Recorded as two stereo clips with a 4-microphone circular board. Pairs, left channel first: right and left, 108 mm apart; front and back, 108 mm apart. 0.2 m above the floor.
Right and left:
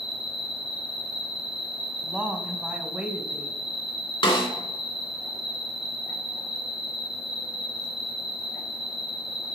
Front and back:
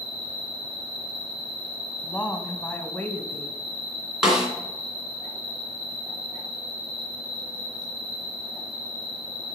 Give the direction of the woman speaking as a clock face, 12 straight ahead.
11 o'clock.